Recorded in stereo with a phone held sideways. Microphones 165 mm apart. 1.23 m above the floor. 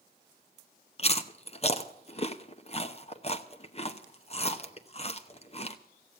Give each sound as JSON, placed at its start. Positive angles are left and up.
{"t": 1.0, "sound": "chewing", "side_deg": 40, "distance_m": 0.8}